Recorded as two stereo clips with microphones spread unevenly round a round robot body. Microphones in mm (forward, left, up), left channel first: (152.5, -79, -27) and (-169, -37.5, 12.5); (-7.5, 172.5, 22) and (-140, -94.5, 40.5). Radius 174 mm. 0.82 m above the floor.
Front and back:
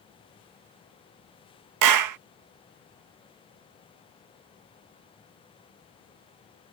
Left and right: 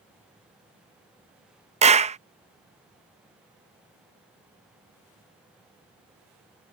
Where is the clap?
175° left.